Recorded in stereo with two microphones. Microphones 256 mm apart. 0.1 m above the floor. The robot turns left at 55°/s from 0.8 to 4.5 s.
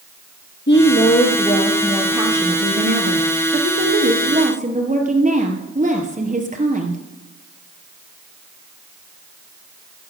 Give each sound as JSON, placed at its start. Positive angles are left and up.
{"t": 0.7, "sound": "a woman speaking", "azimuth_deg": 65, "distance_m": 1.9}